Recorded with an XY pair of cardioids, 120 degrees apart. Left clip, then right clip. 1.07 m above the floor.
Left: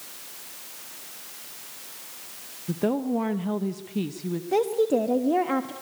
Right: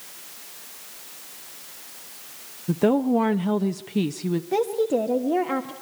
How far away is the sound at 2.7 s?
About 0.7 m.